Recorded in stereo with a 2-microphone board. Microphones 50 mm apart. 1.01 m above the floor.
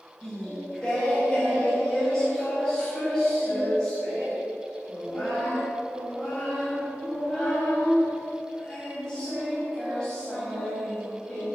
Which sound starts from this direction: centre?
Singing, at 0.2 s.